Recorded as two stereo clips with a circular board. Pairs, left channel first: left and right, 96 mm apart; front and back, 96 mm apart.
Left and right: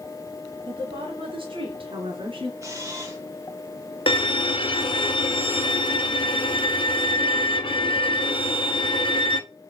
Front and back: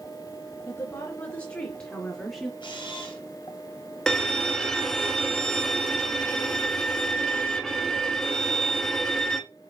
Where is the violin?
85° left, 1.2 m.